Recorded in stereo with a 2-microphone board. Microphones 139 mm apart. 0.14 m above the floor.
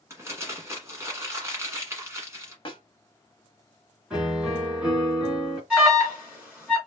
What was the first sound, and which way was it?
Crumpling, 20° right (ahead or behind).